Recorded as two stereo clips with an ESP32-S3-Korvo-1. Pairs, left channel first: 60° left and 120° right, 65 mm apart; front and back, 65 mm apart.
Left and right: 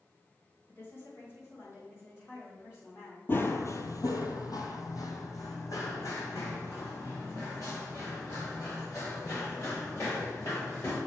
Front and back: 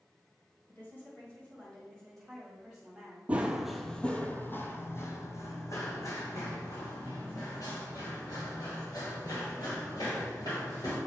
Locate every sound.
0.7 s a woman speaking: 30° left, 1.8 m; by 3.2 s 100° left, 2.5 m
3.3 s running footsteps: 115° left, 0.6 m; by 11.0 s 15° left, 4 m